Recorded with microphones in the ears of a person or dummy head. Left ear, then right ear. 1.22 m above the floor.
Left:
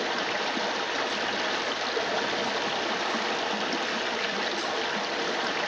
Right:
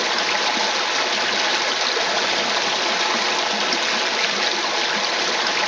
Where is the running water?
30° right (ahead or behind), 1.0 m.